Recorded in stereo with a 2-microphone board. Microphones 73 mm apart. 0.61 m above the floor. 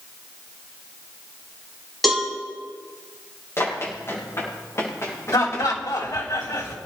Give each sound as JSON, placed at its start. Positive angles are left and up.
{"t": 2.0, "sound": "a cowbell", "side_deg": 0, "distance_m": 5.0}
{"t": 3.6, "sound": "running footsteps", "side_deg": 35, "distance_m": 8.5}
{"t": 5.3, "sound": "laughter", "side_deg": 60, "distance_m": 3.0}